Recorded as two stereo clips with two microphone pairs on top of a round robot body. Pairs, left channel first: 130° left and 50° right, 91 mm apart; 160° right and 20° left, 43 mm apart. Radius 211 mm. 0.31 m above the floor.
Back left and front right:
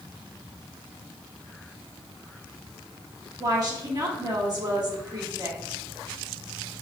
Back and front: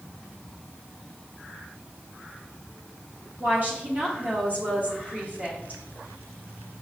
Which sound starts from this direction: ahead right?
A woman speaking, at 3.4 s.